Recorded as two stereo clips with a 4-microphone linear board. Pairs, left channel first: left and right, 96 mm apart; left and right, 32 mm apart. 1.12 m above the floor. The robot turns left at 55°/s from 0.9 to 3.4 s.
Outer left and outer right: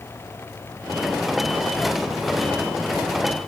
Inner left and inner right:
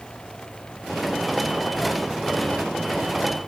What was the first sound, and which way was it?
Only background noise.